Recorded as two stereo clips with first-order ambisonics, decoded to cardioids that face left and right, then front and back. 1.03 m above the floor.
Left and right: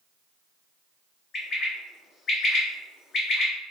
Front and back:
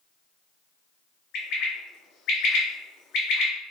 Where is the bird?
35° left, 0.7 m.